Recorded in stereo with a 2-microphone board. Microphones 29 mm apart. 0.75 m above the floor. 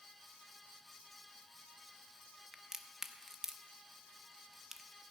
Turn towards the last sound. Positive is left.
turn(degrees=-20)  # may be behind; listen again after turning